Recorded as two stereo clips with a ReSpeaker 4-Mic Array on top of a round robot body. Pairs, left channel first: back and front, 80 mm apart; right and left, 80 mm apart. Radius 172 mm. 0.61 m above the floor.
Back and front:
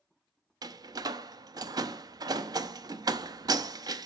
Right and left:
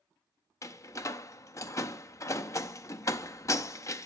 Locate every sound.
0.6 s a door slam: 40° right, 0.6 m